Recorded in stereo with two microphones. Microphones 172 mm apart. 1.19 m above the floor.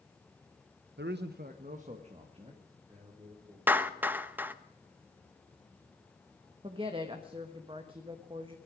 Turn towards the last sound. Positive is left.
turn(degrees=-30)  # may be behind; listen again after turning